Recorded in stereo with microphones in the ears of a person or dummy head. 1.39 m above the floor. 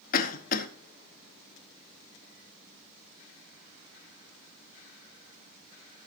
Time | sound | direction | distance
0.1 | a cough | 55° left (ahead or behind) | 1.7 m